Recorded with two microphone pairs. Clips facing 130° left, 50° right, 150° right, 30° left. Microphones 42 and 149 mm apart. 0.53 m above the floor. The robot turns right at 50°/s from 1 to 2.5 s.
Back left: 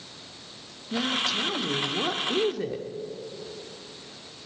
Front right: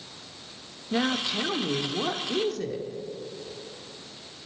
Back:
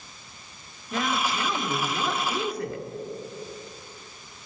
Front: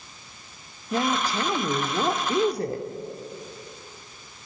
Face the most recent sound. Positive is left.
turn(degrees=65)